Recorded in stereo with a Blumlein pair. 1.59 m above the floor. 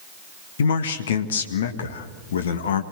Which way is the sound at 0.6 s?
60° left.